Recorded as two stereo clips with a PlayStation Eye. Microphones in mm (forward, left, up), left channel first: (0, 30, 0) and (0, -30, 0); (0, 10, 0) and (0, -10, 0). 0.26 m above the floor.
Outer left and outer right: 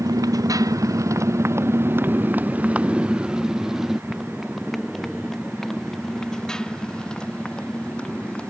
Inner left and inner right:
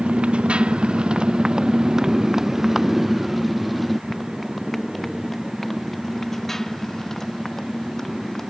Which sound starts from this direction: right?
A motorcycle, at 0.0 s.